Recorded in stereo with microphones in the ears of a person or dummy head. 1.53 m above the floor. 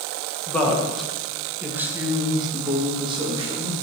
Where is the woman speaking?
20° left (ahead or behind), 1.6 m; by 3.7 s 25° right (ahead or behind), 2.5 m.